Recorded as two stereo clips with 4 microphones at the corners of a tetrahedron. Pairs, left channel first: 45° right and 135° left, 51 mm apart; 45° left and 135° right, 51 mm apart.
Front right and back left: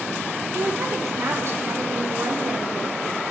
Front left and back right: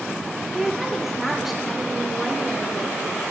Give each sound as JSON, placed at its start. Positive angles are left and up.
{"t": 0.5, "sound": "a woman speaking", "azimuth_deg": 140, "distance_m": 3.0}